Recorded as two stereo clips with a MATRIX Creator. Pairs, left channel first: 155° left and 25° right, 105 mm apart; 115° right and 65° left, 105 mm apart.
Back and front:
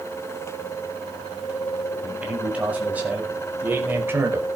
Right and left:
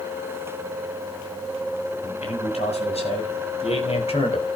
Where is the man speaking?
100° right, 7.5 m; by 4.5 s 90° right, 4.5 m.